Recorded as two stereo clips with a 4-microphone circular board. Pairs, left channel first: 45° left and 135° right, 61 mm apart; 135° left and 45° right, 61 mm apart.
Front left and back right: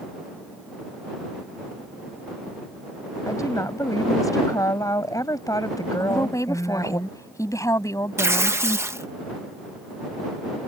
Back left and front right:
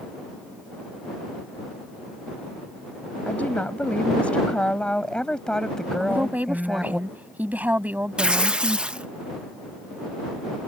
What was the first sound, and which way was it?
A woman speaking, 70° left.